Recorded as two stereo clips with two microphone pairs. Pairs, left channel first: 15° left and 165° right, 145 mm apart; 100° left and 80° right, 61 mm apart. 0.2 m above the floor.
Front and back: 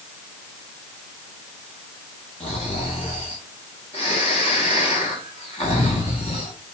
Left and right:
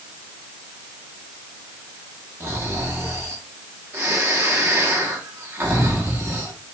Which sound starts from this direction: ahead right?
Snoring, at 2.4 s.